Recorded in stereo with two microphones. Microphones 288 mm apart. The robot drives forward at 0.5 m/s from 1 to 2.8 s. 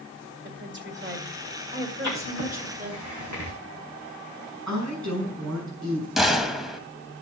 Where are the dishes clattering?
No dishes clattering in this recording.